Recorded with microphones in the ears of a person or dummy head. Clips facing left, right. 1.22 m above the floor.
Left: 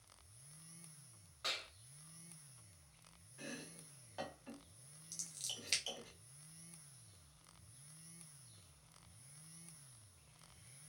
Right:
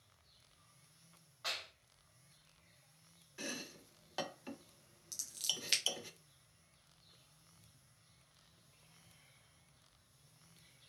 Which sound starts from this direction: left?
A clap, at 1.4 s.